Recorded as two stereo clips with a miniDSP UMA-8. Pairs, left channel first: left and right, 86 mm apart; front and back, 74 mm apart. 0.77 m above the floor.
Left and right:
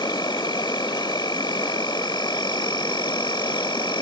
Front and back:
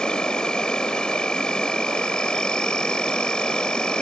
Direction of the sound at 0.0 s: 75° left.